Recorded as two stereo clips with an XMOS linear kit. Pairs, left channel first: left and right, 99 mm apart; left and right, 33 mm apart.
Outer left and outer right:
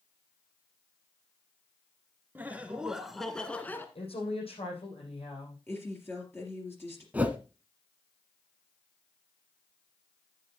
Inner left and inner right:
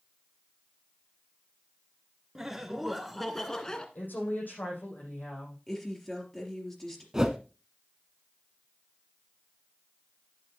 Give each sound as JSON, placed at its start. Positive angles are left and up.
{"t": 2.4, "sound": "laughter", "side_deg": -15, "distance_m": 1.8}
{"t": 4.0, "sound": "a woman speaking", "side_deg": 70, "distance_m": 6.5}
{"t": 5.7, "sound": "a woman speaking", "side_deg": 20, "distance_m": 3.5}
{"t": 7.1, "sound": "a whoosh", "side_deg": -15, "distance_m": 1.1}